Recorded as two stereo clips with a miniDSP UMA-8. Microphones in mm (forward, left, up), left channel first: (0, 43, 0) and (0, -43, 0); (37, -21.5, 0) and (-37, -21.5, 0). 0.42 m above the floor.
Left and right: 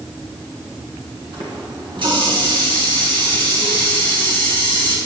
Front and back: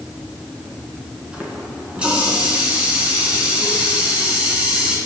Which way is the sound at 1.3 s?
105° right.